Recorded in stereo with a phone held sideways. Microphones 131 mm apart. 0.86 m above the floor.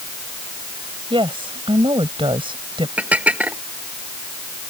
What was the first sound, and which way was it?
A woman speaking, 40° right (ahead or behind).